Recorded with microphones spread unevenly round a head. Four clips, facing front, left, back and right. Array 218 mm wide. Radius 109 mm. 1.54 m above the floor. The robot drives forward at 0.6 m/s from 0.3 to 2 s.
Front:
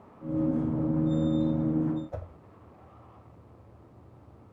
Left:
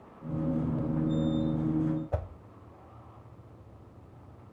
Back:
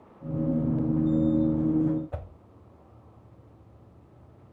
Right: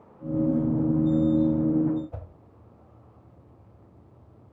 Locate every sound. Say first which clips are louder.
2.1 s a whoosh: left 8 dB, even; 105° left, 1.0 m